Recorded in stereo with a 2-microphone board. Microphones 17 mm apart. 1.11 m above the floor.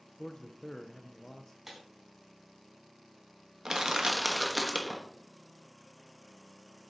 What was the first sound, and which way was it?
A man speaking, 35° left (ahead or behind).